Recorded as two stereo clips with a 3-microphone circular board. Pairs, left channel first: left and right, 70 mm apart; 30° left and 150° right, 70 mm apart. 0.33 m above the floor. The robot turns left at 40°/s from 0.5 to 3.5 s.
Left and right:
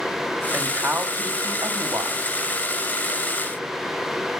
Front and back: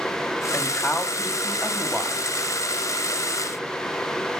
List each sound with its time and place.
0.5 s a man speaking: 35° right, 2 m; by 2.3 s 105° right, 2 m